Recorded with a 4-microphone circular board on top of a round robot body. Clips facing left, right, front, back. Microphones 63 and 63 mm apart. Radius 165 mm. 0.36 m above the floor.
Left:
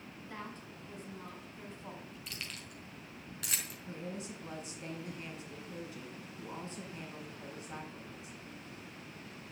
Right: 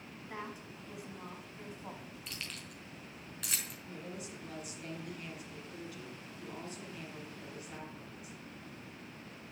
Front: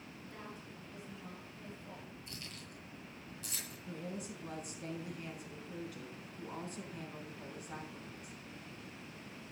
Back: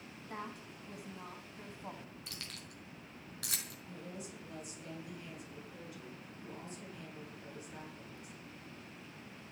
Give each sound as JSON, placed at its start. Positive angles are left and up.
{"t": 0.3, "sound": "a woman speaking", "azimuth_deg": -170, "distance_m": 4.5}
{"t": 2.3, "sound": "keys jangling", "azimuth_deg": 180, "distance_m": 4.0}
{"t": 3.9, "sound": "a woman speaking", "azimuth_deg": 30, "distance_m": 6.0}